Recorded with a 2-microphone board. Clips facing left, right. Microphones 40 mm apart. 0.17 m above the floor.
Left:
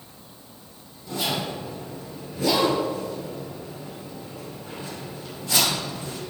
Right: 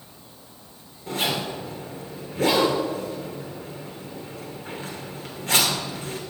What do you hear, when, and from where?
1.1 s a zipper: 65° right (ahead or behind), 2.5 m